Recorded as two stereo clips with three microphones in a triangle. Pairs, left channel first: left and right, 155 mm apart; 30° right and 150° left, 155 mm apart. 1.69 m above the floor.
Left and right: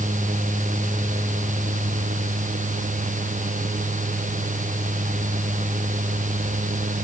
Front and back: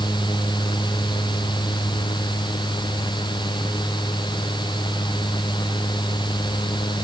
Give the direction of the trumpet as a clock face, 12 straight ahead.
No trumpet in this recording.